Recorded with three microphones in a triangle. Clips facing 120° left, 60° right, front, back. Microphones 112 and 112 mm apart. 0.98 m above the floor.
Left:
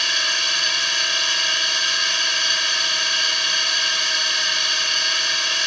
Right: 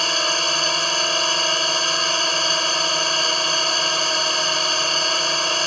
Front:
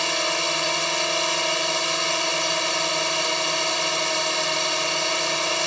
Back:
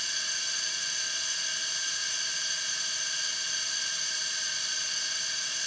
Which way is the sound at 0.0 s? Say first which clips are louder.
Right 5 dB, front 18 dB; 10° right.